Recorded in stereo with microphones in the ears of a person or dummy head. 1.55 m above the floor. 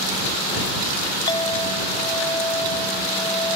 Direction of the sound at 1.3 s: 30° left (ahead or behind).